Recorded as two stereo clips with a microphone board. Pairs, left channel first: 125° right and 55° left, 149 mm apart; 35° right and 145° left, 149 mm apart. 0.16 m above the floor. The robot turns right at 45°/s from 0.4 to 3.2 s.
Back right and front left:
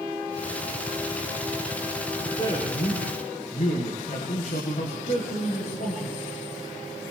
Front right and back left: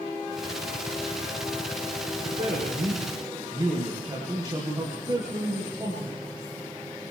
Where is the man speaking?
170° left, 9 m; by 6.2 s 150° right, 9 m.